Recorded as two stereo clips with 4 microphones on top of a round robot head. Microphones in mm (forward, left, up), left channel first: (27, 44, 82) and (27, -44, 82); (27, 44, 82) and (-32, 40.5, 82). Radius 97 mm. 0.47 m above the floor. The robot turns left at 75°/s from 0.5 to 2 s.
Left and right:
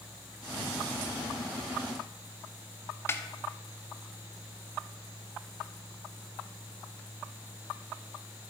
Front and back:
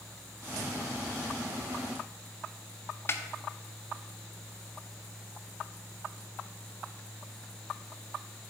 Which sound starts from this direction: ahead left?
A snare drum, at 3.1 s.